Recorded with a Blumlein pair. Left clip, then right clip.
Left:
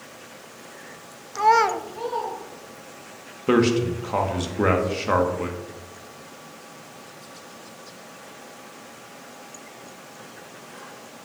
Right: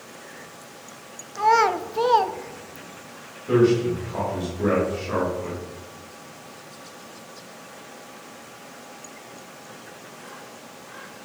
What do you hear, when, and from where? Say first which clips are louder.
1.4 s a child speaking: even; 15° left, 0.5 m; by 3.1 s 65° right, 1.0 m
3.5 s a man speaking: right 1 dB; 35° left, 1.7 m